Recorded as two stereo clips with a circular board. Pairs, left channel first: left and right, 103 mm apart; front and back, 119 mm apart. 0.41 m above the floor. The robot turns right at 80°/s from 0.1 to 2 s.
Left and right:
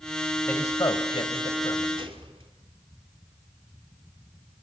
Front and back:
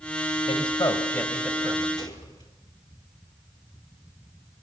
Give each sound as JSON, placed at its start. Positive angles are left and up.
{"t": 0.5, "sound": "a man speaking", "azimuth_deg": 15, "distance_m": 2.5}
{"t": 2.0, "sound": "a gunshot", "azimuth_deg": -55, "distance_m": 4.0}